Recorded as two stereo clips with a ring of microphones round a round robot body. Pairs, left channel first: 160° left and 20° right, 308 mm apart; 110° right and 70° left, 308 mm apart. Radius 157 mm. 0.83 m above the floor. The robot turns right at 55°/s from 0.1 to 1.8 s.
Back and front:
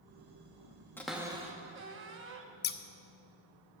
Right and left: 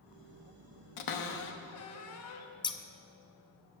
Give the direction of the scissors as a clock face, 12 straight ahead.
6 o'clock.